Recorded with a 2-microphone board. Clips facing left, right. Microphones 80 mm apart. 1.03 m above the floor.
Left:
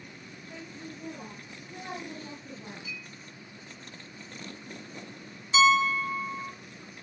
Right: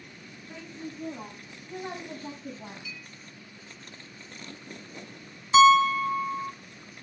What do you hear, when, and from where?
0.5 s a woman speaking: 55° right (ahead or behind), 10 m; by 2.8 s 50° right (ahead or behind), 11 m
2.9 s a clink: 40° left (ahead or behind), 7.5 m
5.5 s a piano: 50° right (ahead or behind), 0.5 m